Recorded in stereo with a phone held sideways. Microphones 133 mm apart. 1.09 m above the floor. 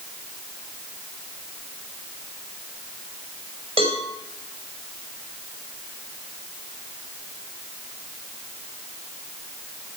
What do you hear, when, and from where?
3.8 s a cowbell: 50° right (ahead or behind), 5 m